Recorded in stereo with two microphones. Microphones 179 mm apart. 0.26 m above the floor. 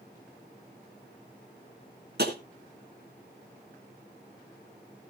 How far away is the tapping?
About 3 m.